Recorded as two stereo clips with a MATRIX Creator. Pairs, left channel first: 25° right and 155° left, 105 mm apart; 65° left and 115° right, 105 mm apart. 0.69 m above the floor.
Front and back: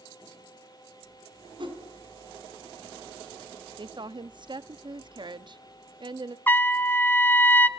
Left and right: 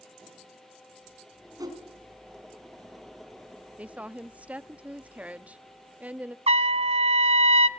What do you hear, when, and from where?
1.6 s a whoosh: 165° right, 5 m
3.8 s a woman speaking: 175° left, 0.7 m
6.5 s a trumpet: 95° right, 0.9 m